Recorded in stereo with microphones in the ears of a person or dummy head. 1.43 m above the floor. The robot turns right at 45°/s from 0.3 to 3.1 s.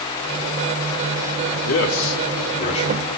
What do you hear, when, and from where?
1.7 s a man speaking: 95° left, 4 m; by 3.1 s 160° left, 4 m